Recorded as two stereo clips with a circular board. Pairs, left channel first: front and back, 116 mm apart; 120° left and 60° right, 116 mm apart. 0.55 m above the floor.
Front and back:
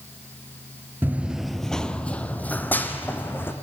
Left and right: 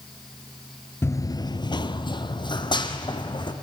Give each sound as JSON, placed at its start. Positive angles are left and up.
{"t": 1.0, "sound": "running footsteps", "azimuth_deg": 140, "distance_m": 0.5}